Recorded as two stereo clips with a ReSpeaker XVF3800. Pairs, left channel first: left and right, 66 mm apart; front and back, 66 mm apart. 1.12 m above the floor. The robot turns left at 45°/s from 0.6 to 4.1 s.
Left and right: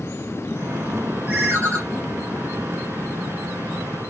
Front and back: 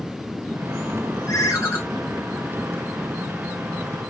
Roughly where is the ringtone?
Ahead right.